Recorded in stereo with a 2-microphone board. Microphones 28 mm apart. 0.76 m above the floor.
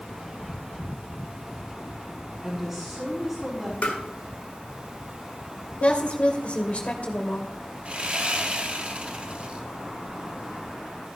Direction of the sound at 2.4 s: 15° right (ahead or behind).